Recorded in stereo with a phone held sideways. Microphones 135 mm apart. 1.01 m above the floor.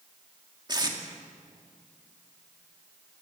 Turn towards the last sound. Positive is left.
turn(degrees=-35)  # may be behind; listen again after turning